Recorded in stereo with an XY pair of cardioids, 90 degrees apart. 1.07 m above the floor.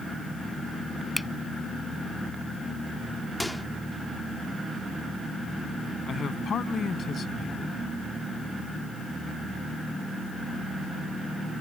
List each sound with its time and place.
1.2 s a finger snap: 10° left
3.4 s a microwave: 10° left
6.1 s a man speaking: 55° left